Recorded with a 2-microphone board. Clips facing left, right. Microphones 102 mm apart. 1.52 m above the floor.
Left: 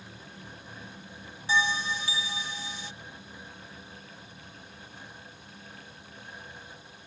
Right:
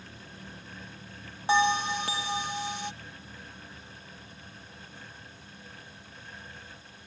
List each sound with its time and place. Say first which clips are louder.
1.5 s a bell: right 4 dB; 60° right (ahead or behind)